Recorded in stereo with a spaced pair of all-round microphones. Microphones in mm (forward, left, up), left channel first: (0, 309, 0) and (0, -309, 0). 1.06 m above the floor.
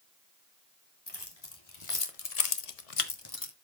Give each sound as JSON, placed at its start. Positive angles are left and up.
{"t": 1.1, "sound": "keys jangling", "side_deg": 40, "distance_m": 2.5}